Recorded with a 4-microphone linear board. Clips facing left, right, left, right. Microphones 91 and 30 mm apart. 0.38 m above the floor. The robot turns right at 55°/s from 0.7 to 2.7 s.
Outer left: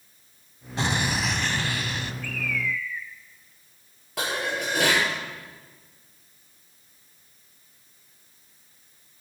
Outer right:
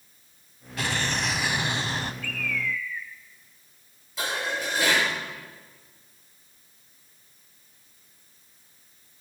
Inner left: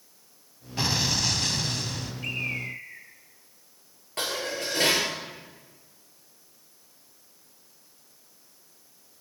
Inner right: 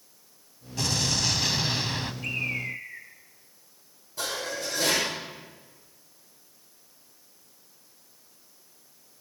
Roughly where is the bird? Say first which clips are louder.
Outer left 1 dB, inner left 1 dB; centre.